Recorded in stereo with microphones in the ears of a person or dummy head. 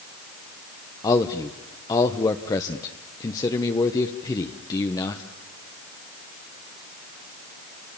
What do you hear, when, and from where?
1.0 s a man speaking: 20° left (ahead or behind), 1.0 m